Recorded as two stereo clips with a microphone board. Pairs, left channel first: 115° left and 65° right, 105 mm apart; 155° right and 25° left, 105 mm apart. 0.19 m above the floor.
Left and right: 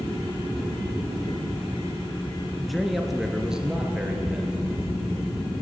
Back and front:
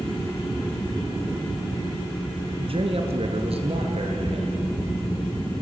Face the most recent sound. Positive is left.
turn(degrees=10)